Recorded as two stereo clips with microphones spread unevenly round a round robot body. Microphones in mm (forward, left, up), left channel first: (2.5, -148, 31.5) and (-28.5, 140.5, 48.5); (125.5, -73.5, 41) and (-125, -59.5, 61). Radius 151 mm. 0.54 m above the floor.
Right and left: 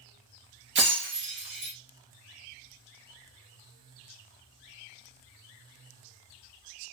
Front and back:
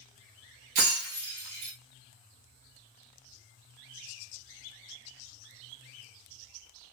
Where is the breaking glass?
150° left, 2.5 m.